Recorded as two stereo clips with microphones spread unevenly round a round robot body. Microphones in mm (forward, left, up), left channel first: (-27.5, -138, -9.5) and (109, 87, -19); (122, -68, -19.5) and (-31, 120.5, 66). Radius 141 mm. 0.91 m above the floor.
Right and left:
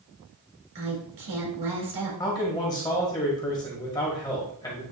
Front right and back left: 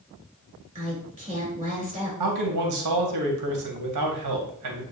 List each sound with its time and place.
0.8 s a woman speaking: 55° left, 4 m
2.2 s a man speaking: 160° left, 1.7 m